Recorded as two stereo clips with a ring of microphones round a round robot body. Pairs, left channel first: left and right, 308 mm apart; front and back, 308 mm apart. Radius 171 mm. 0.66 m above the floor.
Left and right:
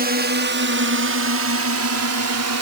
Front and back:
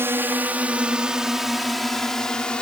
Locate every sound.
0.0 s a drone: 105° right; by 2.6 s 85° right